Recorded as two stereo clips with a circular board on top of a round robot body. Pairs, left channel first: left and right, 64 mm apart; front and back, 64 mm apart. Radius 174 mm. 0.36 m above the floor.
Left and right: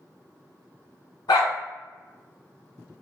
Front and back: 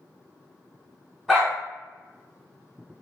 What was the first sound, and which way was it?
A dog barking, 90° left.